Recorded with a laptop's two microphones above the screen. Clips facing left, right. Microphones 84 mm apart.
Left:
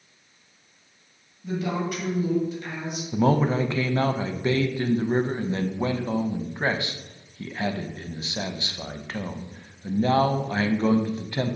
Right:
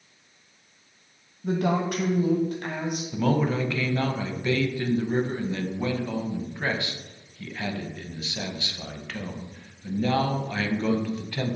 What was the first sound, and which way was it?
A woman speaking, 55° right (ahead or behind).